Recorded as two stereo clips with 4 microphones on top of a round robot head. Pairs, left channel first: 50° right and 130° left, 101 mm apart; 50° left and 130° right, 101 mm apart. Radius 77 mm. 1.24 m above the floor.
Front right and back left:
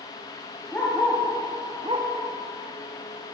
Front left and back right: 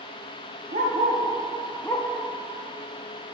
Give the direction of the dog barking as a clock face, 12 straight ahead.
4 o'clock.